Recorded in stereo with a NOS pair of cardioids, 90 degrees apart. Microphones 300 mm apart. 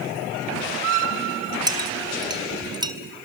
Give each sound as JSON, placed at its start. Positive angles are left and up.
{"t": 1.7, "sound": "a clink", "azimuth_deg": -15, "distance_m": 3.0}